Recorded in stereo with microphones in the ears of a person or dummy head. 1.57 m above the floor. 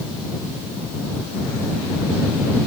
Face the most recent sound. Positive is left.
No sound to turn to.